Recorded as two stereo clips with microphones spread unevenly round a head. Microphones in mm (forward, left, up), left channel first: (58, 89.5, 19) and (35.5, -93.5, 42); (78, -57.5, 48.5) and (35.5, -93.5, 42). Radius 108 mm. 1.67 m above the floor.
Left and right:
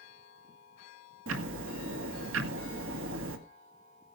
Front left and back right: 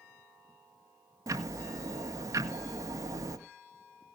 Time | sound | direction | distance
1.3 | ticking | 120° right | 1.7 m